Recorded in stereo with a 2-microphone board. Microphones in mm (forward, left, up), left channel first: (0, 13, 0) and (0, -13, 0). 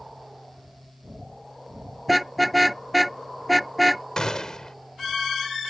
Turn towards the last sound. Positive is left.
turn(degrees=30)  # may be behind; listen again after turning